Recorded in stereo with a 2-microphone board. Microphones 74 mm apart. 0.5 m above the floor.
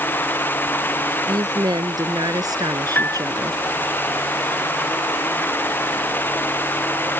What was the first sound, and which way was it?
A woman speaking, 65° right (ahead or behind).